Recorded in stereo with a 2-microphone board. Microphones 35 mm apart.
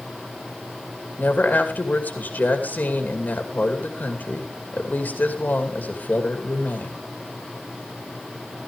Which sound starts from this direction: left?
A woman speaking, at 1.2 s.